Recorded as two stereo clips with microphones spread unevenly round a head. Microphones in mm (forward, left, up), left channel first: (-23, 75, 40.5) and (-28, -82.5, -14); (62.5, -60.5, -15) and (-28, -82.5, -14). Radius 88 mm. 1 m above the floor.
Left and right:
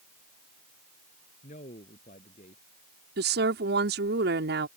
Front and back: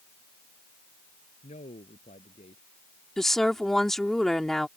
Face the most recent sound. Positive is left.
turn(degrees=-75)